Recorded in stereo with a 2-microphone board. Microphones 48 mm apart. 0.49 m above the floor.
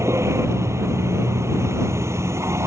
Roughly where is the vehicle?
Right.